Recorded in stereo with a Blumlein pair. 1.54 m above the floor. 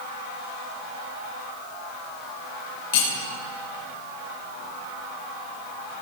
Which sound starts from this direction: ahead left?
Cutlery clinking, at 2.9 s.